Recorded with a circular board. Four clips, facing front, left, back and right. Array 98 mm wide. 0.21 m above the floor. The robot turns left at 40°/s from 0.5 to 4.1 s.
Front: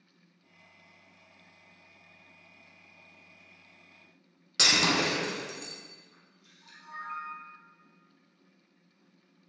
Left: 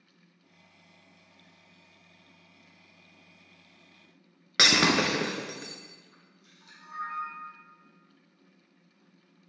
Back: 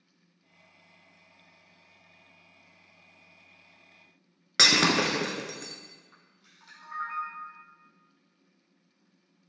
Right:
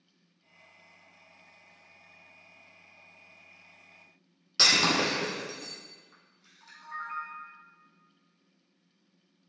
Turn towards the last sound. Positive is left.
turn(degrees=-160)